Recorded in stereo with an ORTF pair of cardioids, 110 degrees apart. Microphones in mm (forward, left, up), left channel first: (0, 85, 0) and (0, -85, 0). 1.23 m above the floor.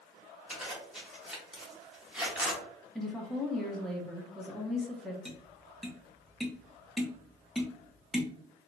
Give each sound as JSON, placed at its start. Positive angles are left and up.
{"t": 0.5, "sound": "a zipper", "azimuth_deg": -5, "distance_m": 1.1}
{"t": 3.0, "sound": "a woman speaking", "azimuth_deg": 0, "distance_m": 0.7}
{"t": 5.2, "sound": "tapping", "azimuth_deg": 0, "distance_m": 0.6}